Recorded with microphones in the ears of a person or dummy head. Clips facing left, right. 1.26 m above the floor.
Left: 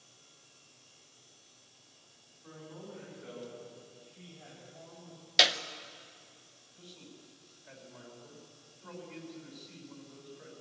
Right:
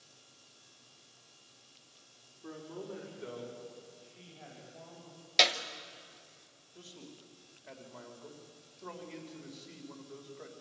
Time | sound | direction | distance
2.4 | a man speaking | 55° right (ahead or behind) | 3.5 m
5.4 | a clap | 5° left (ahead or behind) | 0.9 m
6.8 | a man speaking | 50° right (ahead or behind) | 4 m